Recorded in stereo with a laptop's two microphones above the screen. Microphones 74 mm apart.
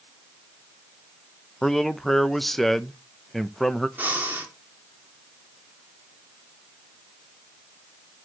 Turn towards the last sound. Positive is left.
turn(degrees=-25)  # may be behind; listen again after turning